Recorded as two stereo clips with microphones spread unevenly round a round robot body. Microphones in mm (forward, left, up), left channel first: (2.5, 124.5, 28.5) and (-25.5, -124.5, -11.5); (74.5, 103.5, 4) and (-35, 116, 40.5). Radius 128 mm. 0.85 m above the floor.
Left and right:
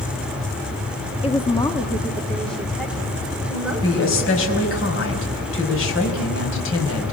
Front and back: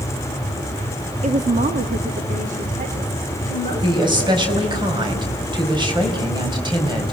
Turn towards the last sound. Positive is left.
turn(degrees=125)